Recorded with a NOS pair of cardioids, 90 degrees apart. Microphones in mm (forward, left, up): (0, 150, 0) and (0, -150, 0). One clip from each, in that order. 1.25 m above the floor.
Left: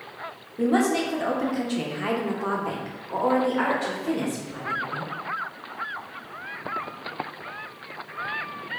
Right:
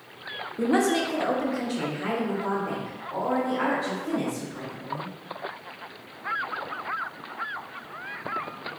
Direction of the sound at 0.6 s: 10° right.